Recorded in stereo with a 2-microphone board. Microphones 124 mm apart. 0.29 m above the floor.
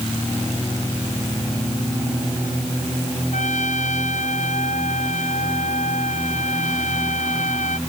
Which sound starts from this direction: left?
A trumpet, at 3.3 s.